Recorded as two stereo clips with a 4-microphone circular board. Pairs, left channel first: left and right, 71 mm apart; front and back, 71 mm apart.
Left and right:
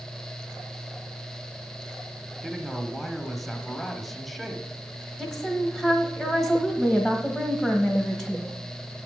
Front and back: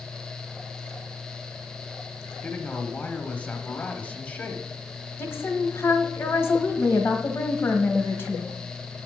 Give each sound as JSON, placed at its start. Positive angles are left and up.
{"t": 2.4, "sound": "a man speaking", "azimuth_deg": 0, "distance_m": 1.0}
{"t": 5.2, "sound": "a woman speaking", "azimuth_deg": -5, "distance_m": 1.3}